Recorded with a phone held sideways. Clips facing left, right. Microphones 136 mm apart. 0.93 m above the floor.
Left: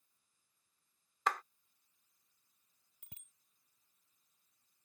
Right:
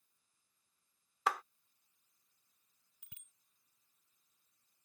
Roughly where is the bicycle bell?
Left.